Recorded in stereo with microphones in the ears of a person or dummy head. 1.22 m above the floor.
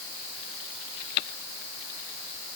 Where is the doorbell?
I don't hear a doorbell.